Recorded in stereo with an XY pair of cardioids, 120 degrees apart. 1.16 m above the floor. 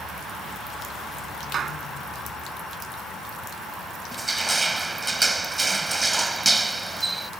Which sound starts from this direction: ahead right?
A clap, at 1.5 s.